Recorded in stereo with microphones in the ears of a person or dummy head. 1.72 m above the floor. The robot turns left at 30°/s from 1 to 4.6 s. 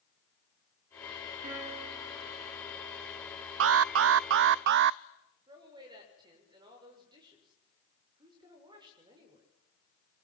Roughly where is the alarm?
Right.